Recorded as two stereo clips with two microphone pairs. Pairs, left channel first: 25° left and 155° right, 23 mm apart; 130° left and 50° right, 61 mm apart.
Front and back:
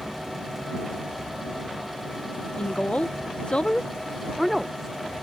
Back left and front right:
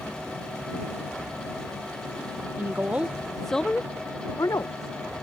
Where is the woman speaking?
5° left; by 4.9 s 125° left.